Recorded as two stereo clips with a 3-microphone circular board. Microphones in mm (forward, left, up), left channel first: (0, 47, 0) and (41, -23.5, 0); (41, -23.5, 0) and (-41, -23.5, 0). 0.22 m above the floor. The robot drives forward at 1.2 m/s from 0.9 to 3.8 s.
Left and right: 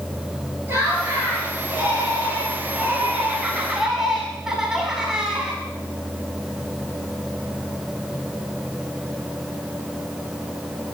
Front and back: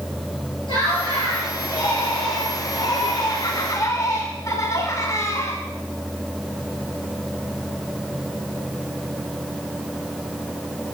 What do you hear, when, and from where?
0.7 s laughter: 5° left, 5 m; by 5.6 s 20° left, 1.8 m